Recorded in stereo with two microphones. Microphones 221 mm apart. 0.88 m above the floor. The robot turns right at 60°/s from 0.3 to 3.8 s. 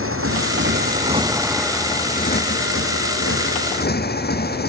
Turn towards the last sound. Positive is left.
turn(degrees=135)